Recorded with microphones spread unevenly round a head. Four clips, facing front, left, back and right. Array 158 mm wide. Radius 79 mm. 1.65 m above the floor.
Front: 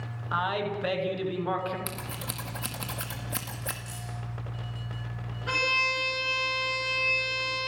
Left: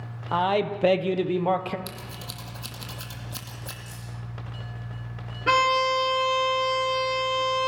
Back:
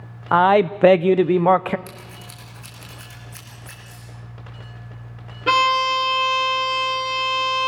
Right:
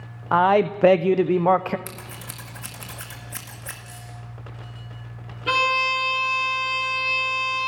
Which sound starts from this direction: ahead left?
Keys jangling, at 3.9 s.